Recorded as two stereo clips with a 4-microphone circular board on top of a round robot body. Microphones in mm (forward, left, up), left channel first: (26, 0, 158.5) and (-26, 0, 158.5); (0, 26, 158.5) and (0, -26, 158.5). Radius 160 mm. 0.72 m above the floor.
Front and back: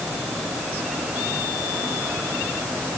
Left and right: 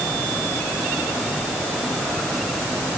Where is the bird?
No bird in this recording.